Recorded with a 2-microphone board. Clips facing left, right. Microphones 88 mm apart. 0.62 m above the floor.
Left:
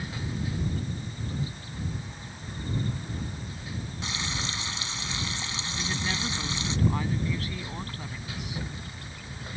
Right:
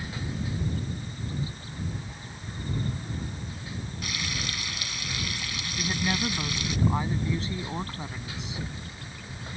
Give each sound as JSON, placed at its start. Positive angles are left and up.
{"t": 4.0, "sound": "frying", "side_deg": 25}
{"t": 5.8, "sound": "a woman speaking", "side_deg": -20}